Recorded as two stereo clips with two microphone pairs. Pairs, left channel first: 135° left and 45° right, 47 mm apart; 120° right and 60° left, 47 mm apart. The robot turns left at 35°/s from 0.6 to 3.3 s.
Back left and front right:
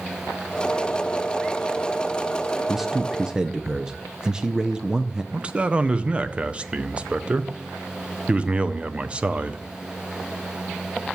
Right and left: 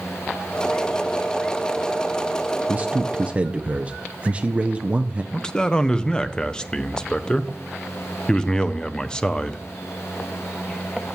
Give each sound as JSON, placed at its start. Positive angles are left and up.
{"t": 2.7, "sound": "a man speaking", "azimuth_deg": 45, "distance_m": 0.5}
{"t": 5.3, "sound": "a man speaking", "azimuth_deg": -75, "distance_m": 0.5}